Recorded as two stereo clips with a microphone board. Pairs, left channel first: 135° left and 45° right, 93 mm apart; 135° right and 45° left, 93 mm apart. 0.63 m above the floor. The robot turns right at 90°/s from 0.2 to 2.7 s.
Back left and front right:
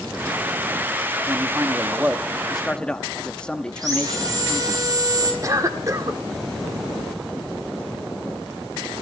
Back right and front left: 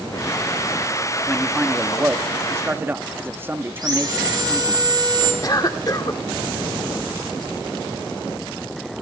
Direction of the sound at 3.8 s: 5° left.